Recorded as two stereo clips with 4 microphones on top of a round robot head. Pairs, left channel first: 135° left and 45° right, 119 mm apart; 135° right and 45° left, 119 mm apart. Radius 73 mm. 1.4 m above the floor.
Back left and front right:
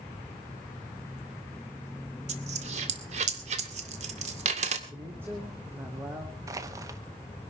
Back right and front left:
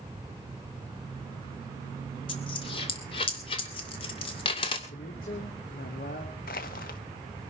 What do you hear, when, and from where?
2.3 s a dropped coin: 80° right, 2 m
4.9 s a man speaking: 120° right, 3 m
6.5 s crushing: 110° right, 1.1 m